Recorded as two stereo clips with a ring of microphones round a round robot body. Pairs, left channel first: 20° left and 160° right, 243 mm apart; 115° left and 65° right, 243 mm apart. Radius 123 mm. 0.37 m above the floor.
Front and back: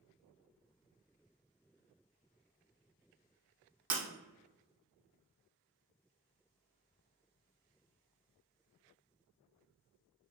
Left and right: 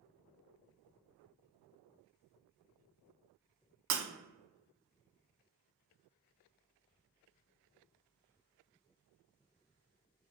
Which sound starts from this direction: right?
Breaking glass, at 3.9 s.